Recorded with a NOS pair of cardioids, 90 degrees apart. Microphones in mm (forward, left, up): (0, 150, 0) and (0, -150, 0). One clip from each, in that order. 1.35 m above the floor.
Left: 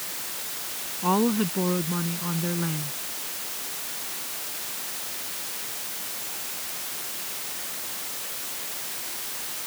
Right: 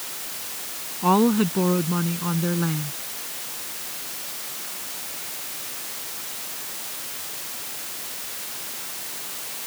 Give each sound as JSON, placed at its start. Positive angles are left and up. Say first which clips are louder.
{"t": 1.0, "sound": "a woman speaking", "louder": "right 4 dB", "azimuth_deg": -30}